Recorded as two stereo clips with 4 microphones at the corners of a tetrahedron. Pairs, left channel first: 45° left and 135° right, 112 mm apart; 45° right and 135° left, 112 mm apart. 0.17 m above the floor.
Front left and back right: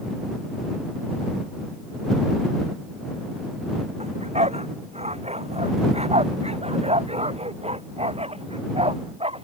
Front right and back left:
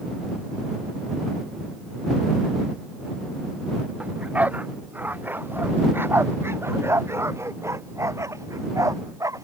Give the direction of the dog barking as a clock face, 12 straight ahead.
5 o'clock.